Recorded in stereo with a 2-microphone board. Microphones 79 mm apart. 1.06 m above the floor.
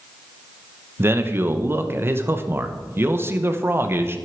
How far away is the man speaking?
About 0.8 m.